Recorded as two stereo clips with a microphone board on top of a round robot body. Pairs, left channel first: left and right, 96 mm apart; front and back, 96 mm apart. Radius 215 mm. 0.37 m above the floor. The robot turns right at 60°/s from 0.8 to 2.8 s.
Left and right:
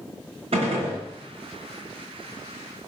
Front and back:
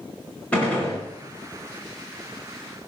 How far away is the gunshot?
About 4.5 m.